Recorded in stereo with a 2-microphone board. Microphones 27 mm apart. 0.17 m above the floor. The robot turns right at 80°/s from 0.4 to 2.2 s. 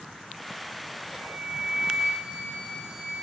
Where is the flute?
35° left, 3 m; by 3.1 s 125° left, 3 m.